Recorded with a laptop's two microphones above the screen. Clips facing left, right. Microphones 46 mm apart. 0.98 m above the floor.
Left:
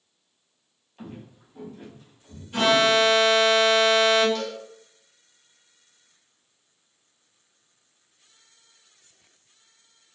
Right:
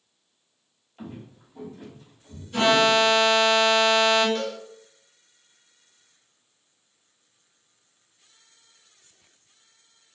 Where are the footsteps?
Centre (ahead or behind), 1.2 m; by 2.4 s 30° left (ahead or behind), 2.5 m.